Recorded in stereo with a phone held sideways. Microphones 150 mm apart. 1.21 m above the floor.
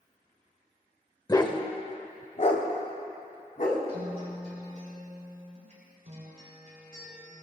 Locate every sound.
1.3 s a dog barking: 25° left (ahead or behind), 1.1 m; by 3.8 s 60° left (ahead or behind), 2.5 m
3.9 s a guitar: 50° right (ahead or behind), 5.5 m